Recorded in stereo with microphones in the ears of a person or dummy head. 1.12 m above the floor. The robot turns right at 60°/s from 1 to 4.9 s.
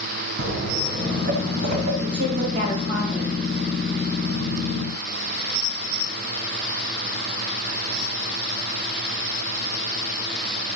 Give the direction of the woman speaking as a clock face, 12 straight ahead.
2 o'clock.